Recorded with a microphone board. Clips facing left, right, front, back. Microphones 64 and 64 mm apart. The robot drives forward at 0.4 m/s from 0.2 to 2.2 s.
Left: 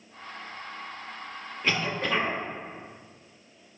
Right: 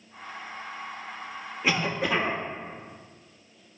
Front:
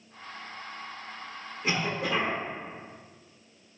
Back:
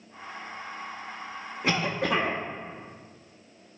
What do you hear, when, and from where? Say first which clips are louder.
1.6 s a cough: right 2 dB, back 3 dB; 170° right, 1.3 m